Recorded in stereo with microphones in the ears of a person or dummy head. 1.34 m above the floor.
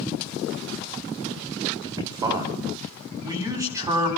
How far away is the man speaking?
About 9 m.